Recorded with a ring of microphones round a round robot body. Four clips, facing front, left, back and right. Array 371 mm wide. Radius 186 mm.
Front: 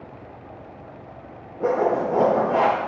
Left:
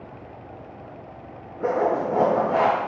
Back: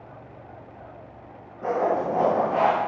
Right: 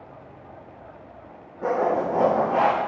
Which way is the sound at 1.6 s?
25° left.